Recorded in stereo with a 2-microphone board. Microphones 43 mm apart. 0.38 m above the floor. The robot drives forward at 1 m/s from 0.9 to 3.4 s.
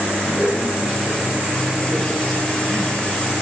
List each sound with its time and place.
0.2 s a man speaking: centre (ahead or behind), 3.5 m